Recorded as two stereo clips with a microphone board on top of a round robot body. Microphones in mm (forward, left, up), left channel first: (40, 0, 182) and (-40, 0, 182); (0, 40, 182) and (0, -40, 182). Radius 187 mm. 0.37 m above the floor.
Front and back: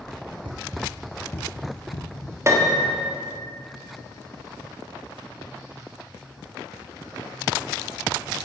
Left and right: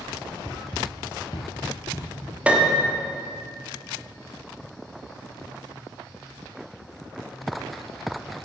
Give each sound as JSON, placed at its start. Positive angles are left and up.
{"t": 0.5, "sound": "running footsteps", "azimuth_deg": 160, "distance_m": 0.6}
{"t": 2.5, "sound": "a piano", "azimuth_deg": -155, "distance_m": 1.6}